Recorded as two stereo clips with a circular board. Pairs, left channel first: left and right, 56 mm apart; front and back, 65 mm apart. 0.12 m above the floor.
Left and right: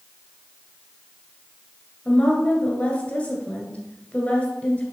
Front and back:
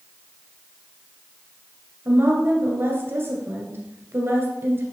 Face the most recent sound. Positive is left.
turn(degrees=145)